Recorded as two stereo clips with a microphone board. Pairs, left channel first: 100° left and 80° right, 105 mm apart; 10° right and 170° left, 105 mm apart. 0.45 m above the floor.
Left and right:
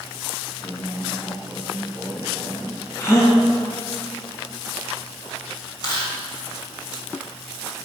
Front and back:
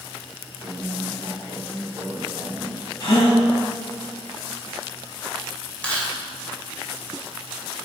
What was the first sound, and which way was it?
A woman speaking, 150° right.